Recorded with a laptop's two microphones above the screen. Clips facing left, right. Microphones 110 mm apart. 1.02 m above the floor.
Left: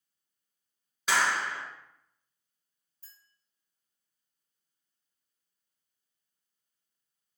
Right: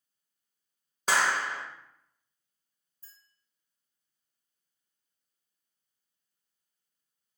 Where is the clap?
40° right (ahead or behind), 0.8 m.